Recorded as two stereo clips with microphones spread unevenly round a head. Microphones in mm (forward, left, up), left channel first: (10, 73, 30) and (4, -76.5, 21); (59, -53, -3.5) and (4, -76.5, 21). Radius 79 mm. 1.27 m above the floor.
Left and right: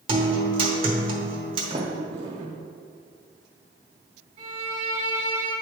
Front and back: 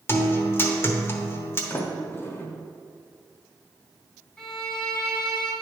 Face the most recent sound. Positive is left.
turn(degrees=-90)